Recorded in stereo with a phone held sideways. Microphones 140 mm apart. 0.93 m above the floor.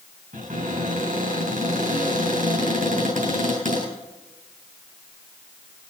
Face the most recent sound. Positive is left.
turn(degrees=-65)  # may be behind; listen again after turning